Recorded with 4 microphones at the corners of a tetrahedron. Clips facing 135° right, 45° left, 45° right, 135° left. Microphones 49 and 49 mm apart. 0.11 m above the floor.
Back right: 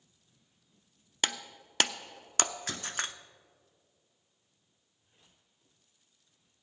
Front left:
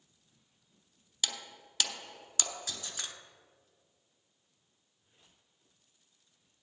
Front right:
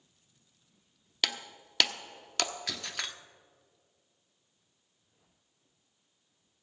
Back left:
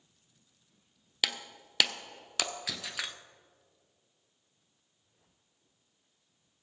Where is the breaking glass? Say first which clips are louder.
Back right 5 dB, even; 140° right, 0.7 m.